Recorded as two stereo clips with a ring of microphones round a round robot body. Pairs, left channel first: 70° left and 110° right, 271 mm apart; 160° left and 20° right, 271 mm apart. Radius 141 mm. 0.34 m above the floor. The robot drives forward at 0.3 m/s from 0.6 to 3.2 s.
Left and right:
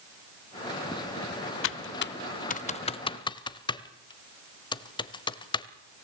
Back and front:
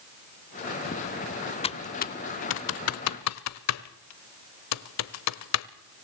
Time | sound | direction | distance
1.6 | typing on a keyboard | 90° left | 0.5 m